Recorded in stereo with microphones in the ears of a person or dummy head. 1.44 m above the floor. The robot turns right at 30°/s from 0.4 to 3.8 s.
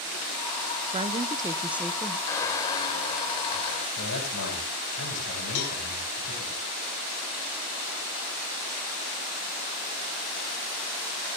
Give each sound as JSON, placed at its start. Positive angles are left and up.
{"t": 0.9, "sound": "a woman speaking", "azimuth_deg": -35, "distance_m": 0.8}
{"t": 2.3, "sound": "a squeak", "azimuth_deg": 35, "distance_m": 1.3}
{"t": 4.0, "sound": "a man speaking", "side_deg": 70, "distance_m": 7.0}
{"t": 5.5, "sound": "a cowbell", "side_deg": 75, "distance_m": 3.5}